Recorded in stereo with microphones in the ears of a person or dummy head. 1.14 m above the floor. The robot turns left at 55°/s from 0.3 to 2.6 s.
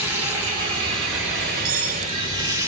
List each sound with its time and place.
0.0 s running water: 10° right (ahead or behind), 0.9 m
1.6 s cutlery clinking: 65° right (ahead or behind), 0.9 m; by 2.1 s 55° right (ahead or behind), 0.9 m